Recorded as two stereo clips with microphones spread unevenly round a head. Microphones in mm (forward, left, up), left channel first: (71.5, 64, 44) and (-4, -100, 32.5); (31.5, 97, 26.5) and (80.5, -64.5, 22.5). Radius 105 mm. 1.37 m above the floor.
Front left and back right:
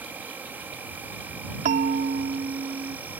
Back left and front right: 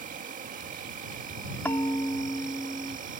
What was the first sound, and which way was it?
An insect, 35° right.